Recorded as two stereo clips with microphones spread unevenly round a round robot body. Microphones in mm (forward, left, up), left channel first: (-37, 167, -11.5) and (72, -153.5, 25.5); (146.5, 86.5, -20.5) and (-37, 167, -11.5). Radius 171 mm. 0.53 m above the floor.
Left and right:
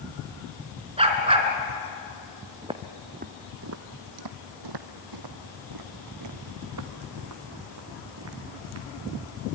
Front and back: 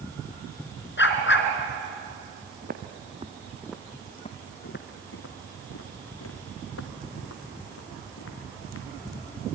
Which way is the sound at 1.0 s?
Straight ahead.